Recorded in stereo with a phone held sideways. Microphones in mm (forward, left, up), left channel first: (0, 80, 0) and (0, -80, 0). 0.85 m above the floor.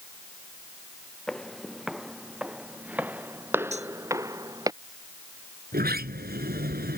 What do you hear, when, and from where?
1.3 s footsteps: 5° left (ahead or behind); by 4.7 s 25° right (ahead or behind)
3.7 s cutlery clinking: 45° right (ahead or behind)
5.7 s a sliding door: 85° right